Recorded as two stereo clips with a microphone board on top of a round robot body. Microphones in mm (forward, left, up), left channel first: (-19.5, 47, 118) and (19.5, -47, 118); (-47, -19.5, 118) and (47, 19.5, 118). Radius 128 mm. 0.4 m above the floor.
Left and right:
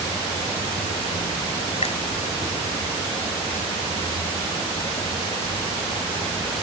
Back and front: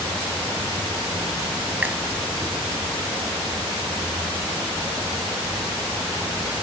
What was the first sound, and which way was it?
A finger snap, 95° left.